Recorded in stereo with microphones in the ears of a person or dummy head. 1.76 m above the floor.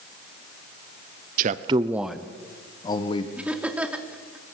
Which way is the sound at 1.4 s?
55° right (ahead or behind).